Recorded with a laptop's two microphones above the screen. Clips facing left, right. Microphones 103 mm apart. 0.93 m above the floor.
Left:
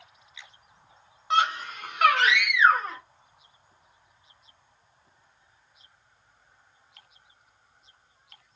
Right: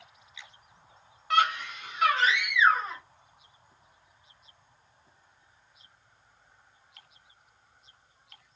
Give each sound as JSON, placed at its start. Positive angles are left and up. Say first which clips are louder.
{"t": 1.3, "sound": "a scream", "louder": "left 1 dB", "side_deg": 20, "distance_m": 0.9}